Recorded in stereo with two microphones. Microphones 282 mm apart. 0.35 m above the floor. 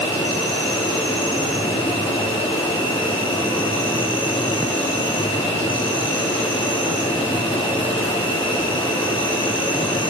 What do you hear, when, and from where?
0.0 s an insect: 20° left (ahead or behind), 8.5 m